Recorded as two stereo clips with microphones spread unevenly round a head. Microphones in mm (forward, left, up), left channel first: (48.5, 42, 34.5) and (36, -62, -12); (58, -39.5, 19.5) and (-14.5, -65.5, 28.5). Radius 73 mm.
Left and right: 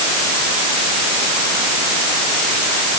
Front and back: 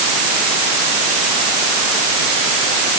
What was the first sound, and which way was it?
Only background noise.